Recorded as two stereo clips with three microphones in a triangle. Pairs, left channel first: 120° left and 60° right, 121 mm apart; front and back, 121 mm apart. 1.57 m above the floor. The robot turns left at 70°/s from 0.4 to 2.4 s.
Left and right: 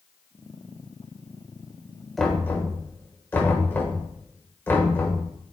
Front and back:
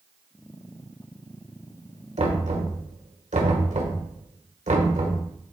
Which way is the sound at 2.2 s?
150° right.